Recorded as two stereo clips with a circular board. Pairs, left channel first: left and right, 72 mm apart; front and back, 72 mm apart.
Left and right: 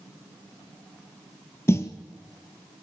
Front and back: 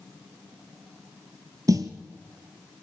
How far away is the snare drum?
About 1.3 m.